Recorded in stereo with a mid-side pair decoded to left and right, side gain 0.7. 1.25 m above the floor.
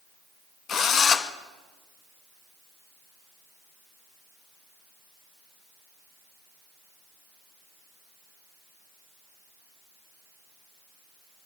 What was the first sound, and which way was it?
A drill, 40° left.